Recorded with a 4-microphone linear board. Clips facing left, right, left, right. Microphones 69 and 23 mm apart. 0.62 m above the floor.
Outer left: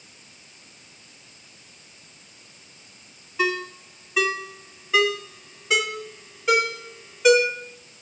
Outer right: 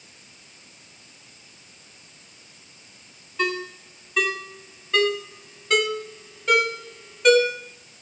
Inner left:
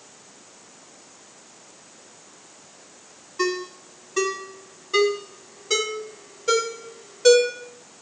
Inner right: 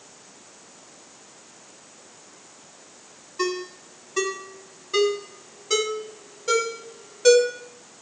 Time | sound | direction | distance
3.4 | a ringtone | 5° left (ahead or behind) | 1.5 m